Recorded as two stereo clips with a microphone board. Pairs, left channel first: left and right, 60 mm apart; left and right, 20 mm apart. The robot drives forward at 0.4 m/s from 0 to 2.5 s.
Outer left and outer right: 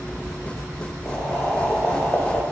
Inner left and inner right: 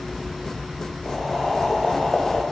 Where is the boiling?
20° left (ahead or behind), 1.1 m; by 2.4 s 25° left (ahead or behind), 0.8 m.